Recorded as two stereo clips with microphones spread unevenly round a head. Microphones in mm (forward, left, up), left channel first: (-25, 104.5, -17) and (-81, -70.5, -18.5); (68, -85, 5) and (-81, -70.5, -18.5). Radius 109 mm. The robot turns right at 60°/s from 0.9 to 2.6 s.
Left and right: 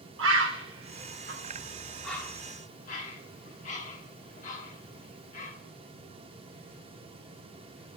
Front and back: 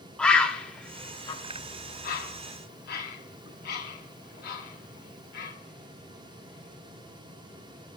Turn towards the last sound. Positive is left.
turn(degrees=15)